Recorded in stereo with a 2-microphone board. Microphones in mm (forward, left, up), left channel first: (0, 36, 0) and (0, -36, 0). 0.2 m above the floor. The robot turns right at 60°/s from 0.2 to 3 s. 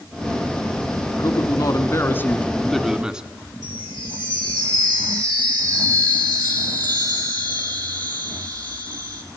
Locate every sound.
1.2 s a man speaking: 85° left, 1.8 m; by 3.3 s 170° right, 1.8 m
3.6 s a chime: 60° right (ahead or behind), 4 m